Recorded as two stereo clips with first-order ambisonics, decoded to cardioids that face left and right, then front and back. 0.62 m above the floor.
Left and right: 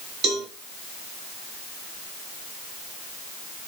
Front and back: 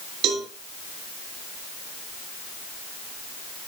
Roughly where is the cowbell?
Behind right.